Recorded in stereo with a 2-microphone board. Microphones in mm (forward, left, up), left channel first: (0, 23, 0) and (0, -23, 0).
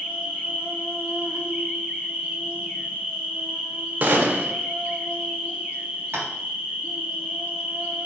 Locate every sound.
0.0 s an insect: 35° right (ahead or behind), 1.4 m
4.0 s a gunshot: 40° right (ahead or behind), 0.8 m
6.1 s tapping: 65° right (ahead or behind), 1.4 m